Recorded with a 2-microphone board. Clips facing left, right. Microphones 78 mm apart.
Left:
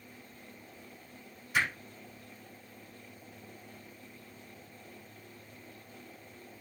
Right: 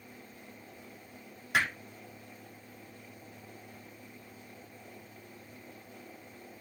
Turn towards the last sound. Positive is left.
turn(degrees=-90)